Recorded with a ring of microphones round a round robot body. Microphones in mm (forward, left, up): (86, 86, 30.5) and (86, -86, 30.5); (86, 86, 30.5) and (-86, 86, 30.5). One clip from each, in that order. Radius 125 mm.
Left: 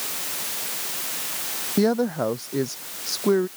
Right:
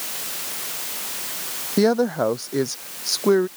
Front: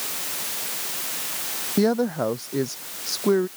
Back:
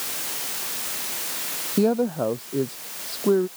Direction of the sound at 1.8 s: 55° right.